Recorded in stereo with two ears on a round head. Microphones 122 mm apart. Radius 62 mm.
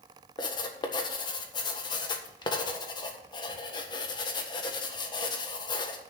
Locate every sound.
0.4 s writing: 35° left (ahead or behind), 1.5 m